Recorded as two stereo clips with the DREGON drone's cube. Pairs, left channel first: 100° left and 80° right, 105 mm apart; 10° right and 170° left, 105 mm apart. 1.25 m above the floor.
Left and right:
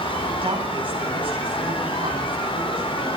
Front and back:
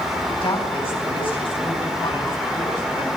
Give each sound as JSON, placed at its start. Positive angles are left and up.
{"t": 0.4, "sound": "a woman speaking", "azimuth_deg": -45, "distance_m": 10.0}